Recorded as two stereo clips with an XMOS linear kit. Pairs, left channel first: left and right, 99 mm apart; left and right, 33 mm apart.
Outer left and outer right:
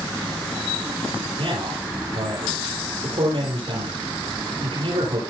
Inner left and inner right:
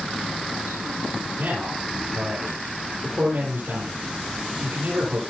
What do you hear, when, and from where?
1.4 s a man speaking: 75° right (ahead or behind), 9 m